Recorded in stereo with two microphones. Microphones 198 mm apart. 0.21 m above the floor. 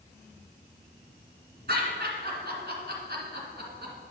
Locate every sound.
1.7 s laughter: 60° right (ahead or behind), 1.8 m